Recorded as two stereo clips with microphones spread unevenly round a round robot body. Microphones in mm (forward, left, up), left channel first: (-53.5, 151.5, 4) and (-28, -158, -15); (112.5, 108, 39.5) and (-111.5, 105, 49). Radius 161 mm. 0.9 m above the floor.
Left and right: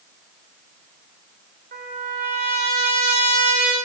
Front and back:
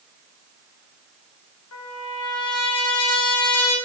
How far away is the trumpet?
About 2.5 m.